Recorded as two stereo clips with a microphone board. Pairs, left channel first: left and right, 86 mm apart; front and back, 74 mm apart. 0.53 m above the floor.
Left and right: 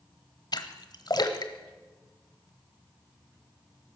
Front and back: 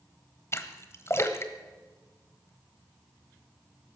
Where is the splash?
50° left, 1.2 m.